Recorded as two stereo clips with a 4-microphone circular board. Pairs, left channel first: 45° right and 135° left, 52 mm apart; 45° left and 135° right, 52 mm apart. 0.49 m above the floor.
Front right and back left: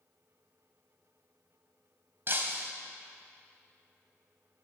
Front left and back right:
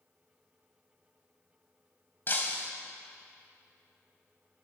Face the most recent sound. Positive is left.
turn(degrees=90)